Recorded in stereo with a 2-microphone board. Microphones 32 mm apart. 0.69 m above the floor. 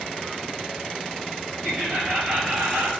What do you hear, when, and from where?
1.6 s laughter: 45° right (ahead or behind), 4.5 m; by 2.9 s 65° right (ahead or behind), 4.5 m